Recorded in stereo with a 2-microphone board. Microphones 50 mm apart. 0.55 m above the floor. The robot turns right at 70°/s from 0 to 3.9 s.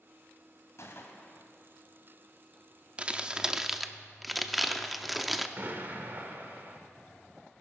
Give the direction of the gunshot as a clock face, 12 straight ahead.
8 o'clock.